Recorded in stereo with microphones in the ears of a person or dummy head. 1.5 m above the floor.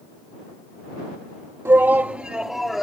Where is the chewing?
No chewing in this recording.